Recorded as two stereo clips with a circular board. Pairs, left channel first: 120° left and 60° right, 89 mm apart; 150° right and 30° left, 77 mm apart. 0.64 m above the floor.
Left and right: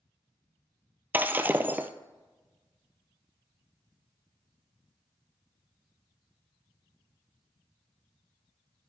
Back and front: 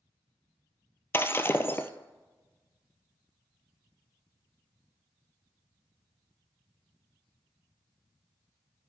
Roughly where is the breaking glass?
Behind right.